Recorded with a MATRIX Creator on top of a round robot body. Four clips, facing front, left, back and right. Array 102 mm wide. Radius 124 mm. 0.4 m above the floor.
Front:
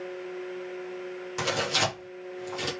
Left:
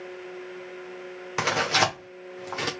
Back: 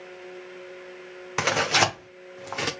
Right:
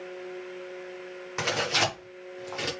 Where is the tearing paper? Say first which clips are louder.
Left 4 dB, back 5 dB; 155° left, 1.5 m.